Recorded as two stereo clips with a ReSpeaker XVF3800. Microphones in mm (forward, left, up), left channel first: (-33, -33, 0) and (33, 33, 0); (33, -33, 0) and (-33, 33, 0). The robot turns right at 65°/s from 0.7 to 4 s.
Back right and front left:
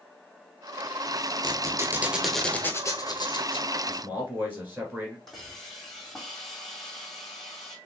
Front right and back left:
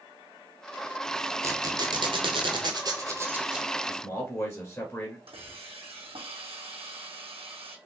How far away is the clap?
No clap in this recording.